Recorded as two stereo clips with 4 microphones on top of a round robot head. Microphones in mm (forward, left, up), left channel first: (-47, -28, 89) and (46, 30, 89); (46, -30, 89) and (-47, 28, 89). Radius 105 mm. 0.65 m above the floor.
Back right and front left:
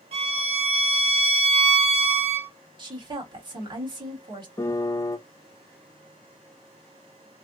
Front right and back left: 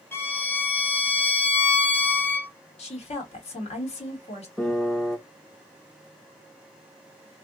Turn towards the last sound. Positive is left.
turn(degrees=-110)